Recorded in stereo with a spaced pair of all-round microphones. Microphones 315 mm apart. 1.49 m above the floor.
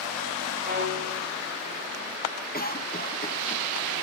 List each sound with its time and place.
0.6 s a violin: 30° right (ahead or behind), 3.5 m
2.5 s a cough: 30° left (ahead or behind), 1.2 m